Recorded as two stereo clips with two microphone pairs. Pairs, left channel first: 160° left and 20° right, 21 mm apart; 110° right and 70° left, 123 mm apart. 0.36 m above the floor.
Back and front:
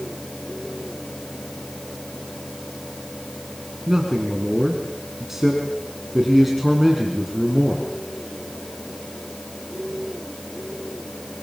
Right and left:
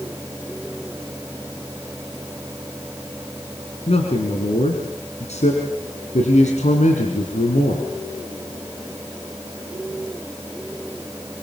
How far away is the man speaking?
About 4.5 m.